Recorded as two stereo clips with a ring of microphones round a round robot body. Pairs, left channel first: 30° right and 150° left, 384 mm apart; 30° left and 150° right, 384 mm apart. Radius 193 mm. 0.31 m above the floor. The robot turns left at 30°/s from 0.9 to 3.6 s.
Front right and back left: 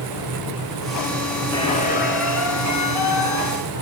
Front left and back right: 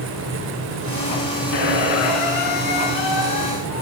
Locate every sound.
1.5 s a squeak: 50° left, 1.8 m; by 3.8 s 10° right, 1.8 m